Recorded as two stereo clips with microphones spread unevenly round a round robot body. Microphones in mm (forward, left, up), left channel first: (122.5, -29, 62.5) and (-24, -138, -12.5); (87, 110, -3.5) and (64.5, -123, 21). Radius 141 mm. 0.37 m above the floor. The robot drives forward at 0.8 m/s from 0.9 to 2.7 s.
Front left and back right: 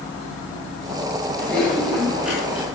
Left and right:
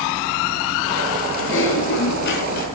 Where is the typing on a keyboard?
130° left, 3.5 m; by 2.7 s 140° left, 4 m.